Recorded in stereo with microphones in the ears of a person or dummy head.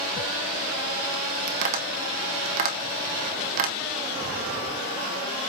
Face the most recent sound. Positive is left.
turn(degrees=-45)  # may be behind; listen again after turning